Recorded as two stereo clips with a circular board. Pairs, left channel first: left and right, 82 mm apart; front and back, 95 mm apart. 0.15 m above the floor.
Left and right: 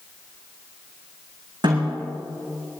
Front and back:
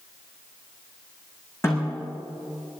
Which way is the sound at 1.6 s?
65° right.